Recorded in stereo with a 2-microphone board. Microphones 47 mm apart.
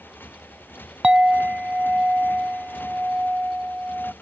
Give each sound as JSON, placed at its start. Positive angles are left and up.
{"t": 0.0, "sound": "a motorcycle", "side_deg": 45}
{"t": 1.0, "sound": "a clink", "side_deg": -20}